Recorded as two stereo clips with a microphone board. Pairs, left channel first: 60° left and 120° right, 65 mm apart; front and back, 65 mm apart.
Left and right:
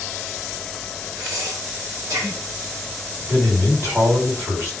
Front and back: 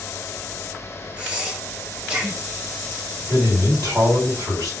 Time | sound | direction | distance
1.2 | breathing | 110° right | 1.1 m
3.3 | a man speaking | 170° right | 1.8 m